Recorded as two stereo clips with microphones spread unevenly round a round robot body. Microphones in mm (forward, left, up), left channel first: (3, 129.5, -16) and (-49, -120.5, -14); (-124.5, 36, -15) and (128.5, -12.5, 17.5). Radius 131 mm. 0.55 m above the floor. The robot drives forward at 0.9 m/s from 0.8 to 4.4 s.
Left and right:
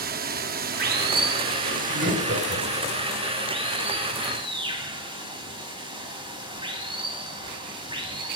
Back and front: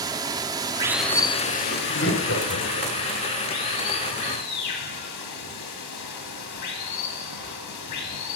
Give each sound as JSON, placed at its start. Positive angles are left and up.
{"t": 0.0, "sound": "running water", "azimuth_deg": -90, "distance_m": 0.8}
{"t": 1.6, "sound": "laughter", "azimuth_deg": -145, "distance_m": 3.5}